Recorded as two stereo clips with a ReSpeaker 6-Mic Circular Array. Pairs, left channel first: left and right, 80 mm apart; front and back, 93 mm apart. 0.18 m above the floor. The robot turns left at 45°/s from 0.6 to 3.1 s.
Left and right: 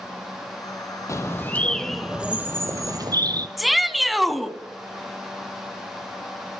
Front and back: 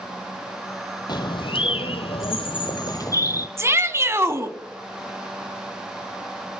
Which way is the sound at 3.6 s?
Straight behind.